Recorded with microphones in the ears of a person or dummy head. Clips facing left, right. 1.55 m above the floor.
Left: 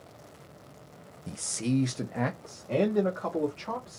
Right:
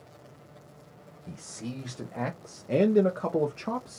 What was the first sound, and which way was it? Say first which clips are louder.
A man speaking: left 9 dB; 50° left (ahead or behind).